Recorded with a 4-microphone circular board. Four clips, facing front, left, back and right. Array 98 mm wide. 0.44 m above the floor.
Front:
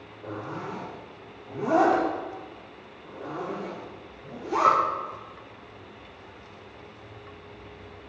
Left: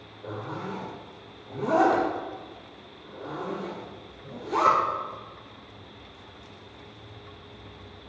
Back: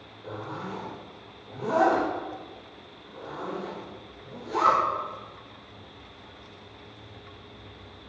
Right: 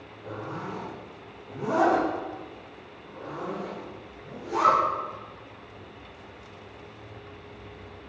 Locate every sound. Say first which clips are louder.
0.2 s a zipper: left 1 dB, front 1 dB; 20° left, 5.5 m